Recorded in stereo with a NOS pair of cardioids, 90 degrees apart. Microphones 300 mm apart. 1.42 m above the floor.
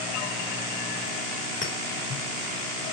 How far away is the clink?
About 4.5 m.